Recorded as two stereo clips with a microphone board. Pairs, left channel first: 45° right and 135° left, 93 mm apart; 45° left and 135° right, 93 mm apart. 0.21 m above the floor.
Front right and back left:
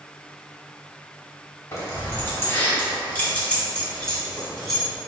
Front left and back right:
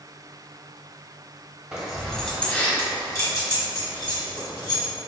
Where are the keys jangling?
65° right, 1.0 m; by 4.9 s 40° left, 2 m.